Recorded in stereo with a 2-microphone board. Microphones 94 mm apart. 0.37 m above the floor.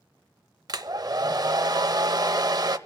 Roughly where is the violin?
No violin in this recording.